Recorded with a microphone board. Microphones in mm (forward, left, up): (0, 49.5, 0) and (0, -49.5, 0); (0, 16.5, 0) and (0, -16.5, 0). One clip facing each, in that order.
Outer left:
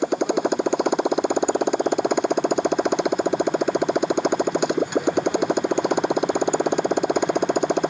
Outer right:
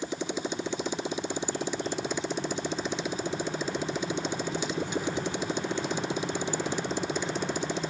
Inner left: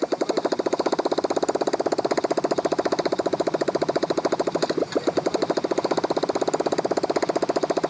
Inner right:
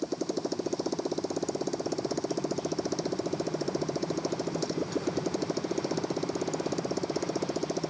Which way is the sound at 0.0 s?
65° left (ahead or behind).